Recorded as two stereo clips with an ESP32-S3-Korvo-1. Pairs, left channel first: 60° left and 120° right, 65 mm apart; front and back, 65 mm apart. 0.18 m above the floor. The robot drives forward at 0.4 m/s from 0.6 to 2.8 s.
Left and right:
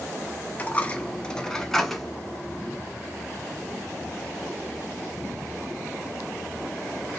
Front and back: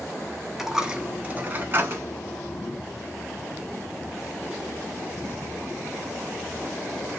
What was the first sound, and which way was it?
A dropped coin, 100° left.